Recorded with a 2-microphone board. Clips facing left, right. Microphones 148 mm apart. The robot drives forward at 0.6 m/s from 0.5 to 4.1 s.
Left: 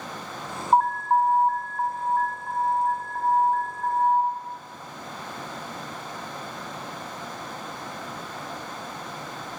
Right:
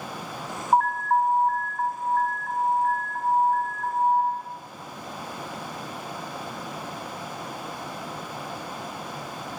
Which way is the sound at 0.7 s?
15° left (ahead or behind).